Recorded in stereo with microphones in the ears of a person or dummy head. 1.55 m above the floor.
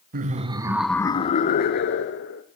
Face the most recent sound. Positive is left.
turn(degrees=65)  # may be behind; listen again after turning